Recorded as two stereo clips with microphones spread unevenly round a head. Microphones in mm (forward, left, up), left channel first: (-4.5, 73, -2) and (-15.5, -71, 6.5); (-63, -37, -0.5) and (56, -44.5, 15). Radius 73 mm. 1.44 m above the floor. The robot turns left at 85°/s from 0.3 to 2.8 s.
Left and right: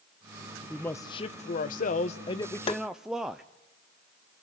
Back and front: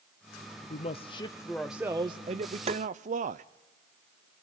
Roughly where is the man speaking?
Behind.